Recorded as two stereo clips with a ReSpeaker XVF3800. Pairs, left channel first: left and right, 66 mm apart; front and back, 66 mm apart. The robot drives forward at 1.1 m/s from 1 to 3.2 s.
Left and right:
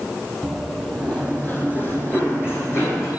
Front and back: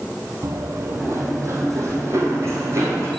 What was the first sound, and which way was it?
Running footsteps, 175° left.